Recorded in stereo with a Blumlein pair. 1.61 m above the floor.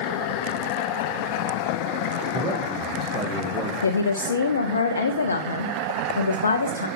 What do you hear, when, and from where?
2.3 s a man speaking: 10° right, 2 m
3.8 s a woman speaking: 70° left, 0.8 m